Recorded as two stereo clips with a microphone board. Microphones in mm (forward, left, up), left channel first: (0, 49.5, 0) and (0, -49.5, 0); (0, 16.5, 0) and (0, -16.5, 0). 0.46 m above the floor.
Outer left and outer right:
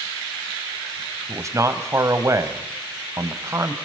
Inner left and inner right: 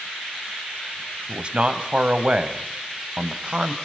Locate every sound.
1.3 s a man speaking: 30° right (ahead or behind), 2.5 m